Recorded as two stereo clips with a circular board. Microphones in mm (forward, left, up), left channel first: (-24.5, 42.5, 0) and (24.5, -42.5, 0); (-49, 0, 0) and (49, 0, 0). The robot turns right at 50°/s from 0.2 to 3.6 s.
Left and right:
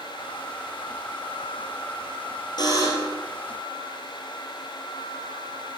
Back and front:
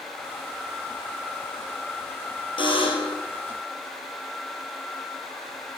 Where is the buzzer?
155° left, 1.4 m; by 3.2 s 175° right, 1.4 m.